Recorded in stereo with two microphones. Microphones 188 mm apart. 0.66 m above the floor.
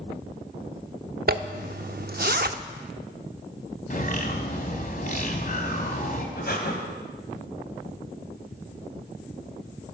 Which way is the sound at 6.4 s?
55° left (ahead or behind).